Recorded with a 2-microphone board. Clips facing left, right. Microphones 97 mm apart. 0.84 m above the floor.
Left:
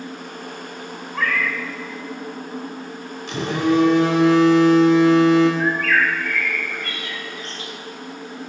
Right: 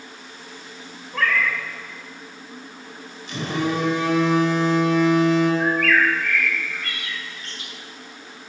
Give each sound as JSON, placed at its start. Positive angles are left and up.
{"t": 1.1, "sound": "a cat meowing", "side_deg": 5, "distance_m": 1.2}
{"t": 3.3, "sound": "a phone buzzing", "side_deg": 80, "distance_m": 1.5}
{"t": 5.6, "sound": "a bird", "side_deg": 35, "distance_m": 1.2}